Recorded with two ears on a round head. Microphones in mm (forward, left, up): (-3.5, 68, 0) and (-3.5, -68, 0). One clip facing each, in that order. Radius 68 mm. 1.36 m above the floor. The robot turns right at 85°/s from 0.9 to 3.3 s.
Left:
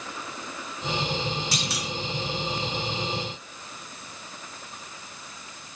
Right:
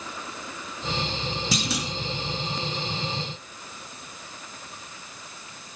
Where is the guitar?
I don't hear a guitar.